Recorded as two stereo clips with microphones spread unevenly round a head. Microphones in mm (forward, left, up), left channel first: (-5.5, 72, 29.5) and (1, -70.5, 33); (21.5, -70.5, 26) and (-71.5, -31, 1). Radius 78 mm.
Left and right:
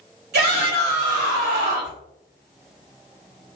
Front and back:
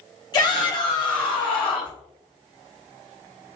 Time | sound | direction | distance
0.3 | a shout | 75° right | 1.9 m